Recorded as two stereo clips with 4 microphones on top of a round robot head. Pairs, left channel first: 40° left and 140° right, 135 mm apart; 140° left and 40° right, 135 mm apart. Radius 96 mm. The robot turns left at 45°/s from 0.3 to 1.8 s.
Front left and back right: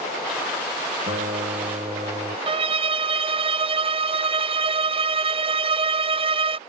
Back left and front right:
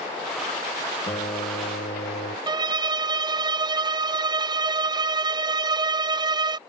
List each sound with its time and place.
1.1 s a guitar: 165° right; by 2.4 s 160° left
2.5 s a violin: 95° right